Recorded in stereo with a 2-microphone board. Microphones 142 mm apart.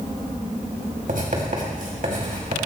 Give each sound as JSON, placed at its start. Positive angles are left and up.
{"t": 1.1, "sound": "writing", "side_deg": -65, "distance_m": 3.0}